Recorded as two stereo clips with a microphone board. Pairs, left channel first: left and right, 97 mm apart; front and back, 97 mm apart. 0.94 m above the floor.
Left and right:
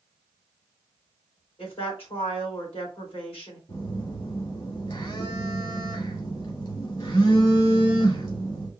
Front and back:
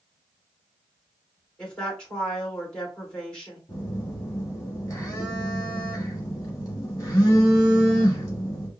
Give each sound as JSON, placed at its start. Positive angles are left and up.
{"t": 1.6, "sound": "a woman speaking", "azimuth_deg": 80, "distance_m": 3.0}
{"t": 3.7, "sound": "a phone buzzing", "azimuth_deg": 60, "distance_m": 2.0}